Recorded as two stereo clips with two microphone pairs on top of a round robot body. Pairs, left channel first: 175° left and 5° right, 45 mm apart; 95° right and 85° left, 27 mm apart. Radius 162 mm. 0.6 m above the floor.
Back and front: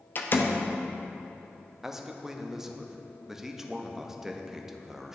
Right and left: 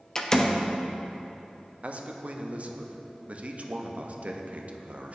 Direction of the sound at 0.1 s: 160° right.